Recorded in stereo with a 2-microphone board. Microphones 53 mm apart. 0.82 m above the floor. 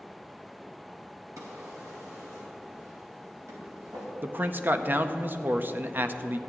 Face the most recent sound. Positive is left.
turn(degrees=-35)  # may be behind; listen again after turning